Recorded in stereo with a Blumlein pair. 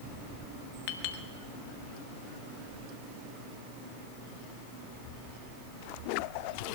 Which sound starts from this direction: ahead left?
A clink, at 0.9 s.